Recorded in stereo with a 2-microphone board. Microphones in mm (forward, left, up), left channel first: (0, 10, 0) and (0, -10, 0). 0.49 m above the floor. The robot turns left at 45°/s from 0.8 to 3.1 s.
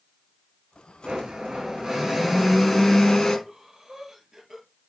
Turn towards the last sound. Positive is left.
turn(degrees=-20)  # may be behind; listen again after turning